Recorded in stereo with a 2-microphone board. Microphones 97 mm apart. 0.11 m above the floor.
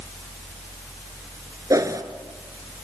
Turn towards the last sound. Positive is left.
turn(degrees=-35)  # may be behind; listen again after turning